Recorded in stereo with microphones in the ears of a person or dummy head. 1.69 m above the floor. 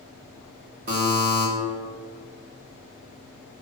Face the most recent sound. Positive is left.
turn(degrees=-35)  # may be behind; listen again after turning